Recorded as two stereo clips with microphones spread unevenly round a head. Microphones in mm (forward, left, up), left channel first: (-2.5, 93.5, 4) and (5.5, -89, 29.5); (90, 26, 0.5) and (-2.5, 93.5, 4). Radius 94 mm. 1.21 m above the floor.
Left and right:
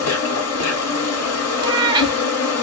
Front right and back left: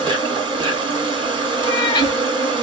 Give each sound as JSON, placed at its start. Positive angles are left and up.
{"t": 0.0, "sound": "an insect", "azimuth_deg": 100, "distance_m": 2.0}
{"t": 1.6, "sound": "a cat meowing", "azimuth_deg": -65, "distance_m": 0.7}